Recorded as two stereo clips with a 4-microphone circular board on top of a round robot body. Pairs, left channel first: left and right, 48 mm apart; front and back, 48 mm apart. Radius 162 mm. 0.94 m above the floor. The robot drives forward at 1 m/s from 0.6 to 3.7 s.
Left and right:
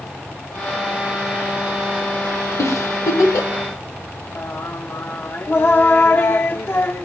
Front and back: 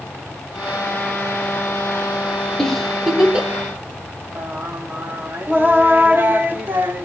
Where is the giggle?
80° left, 1.7 m; by 3.5 s 110° left, 1.8 m.